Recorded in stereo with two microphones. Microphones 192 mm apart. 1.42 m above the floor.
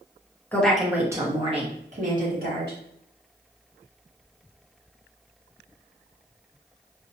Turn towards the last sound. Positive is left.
turn(degrees=-55)  # may be behind; listen again after turning